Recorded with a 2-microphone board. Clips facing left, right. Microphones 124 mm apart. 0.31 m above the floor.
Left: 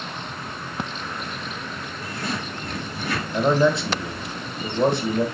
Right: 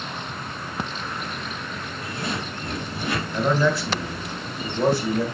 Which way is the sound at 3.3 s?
20° left (ahead or behind).